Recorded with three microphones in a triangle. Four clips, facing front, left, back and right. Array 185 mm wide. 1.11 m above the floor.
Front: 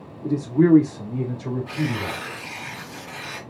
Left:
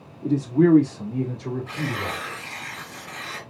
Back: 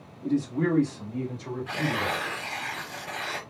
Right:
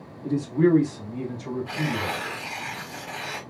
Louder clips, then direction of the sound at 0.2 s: Left 3 dB, front 7 dB; 50° left.